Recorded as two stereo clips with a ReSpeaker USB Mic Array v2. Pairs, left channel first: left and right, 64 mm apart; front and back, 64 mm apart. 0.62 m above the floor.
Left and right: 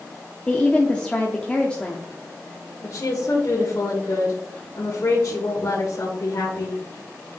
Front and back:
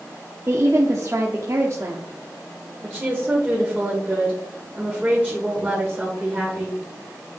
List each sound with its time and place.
0.5 s a woman speaking: 160° left, 1.0 m
2.8 s a woman speaking: 115° left, 1.7 m